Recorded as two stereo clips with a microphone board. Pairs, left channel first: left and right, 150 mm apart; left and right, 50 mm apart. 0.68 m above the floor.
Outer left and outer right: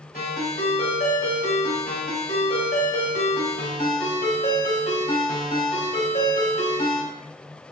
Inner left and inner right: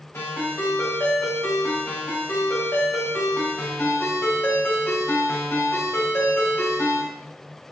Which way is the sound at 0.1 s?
85° left.